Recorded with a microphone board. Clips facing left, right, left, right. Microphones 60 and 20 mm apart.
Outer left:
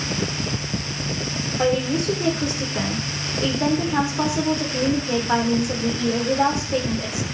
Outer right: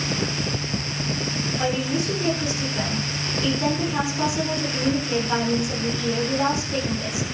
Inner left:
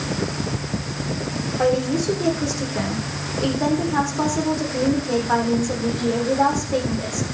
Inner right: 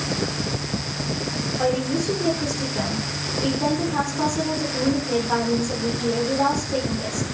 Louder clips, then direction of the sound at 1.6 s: Outer left 5 dB, inner left 3 dB; 40° left (ahead or behind).